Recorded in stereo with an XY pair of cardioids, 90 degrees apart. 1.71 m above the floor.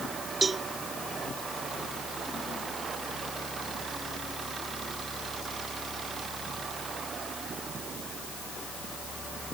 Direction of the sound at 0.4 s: 35° right.